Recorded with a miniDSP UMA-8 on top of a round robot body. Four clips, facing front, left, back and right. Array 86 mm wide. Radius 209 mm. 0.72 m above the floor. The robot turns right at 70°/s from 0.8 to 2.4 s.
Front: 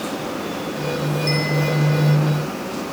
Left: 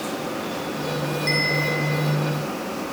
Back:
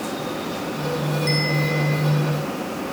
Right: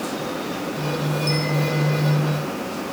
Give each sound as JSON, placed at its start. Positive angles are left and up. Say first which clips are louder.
{"t": 1.3, "sound": "a bell", "louder": "even, front 2 dB", "azimuth_deg": 105, "distance_m": 4.5}